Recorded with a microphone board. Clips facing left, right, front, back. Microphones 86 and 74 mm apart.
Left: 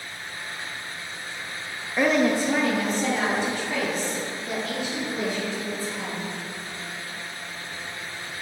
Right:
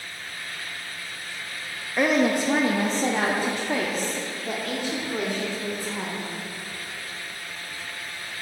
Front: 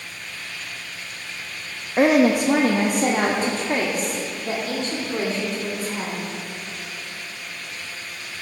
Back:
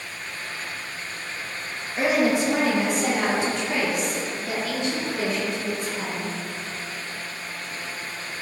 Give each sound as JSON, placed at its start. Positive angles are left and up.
{"t": 2.0, "sound": "a woman speaking", "azimuth_deg": -5, "distance_m": 0.7}